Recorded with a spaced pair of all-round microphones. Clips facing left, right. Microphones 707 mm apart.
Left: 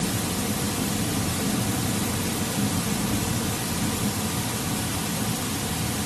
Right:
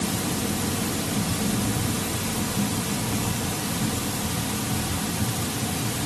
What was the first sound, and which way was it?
Only background noise.